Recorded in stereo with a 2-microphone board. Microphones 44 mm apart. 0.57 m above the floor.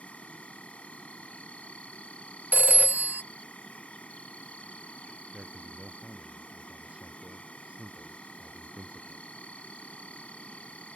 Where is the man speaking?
30° right (ahead or behind).